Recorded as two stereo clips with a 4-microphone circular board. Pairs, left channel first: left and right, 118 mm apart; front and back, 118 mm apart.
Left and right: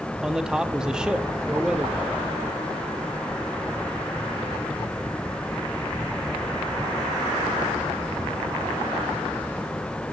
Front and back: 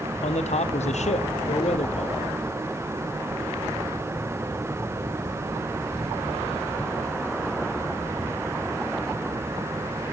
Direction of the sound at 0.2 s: 5° right.